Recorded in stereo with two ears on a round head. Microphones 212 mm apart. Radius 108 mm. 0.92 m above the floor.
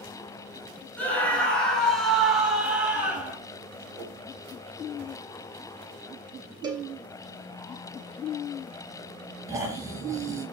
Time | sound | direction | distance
1.0 | a scream | 5° left (ahead or behind) | 6.5 m
4.0 | a whoosh | 15° left (ahead or behind) | 9.5 m
6.6 | a cowbell | 20° right (ahead or behind) | 3 m
9.5 | snoring | 15° right (ahead or behind) | 4.5 m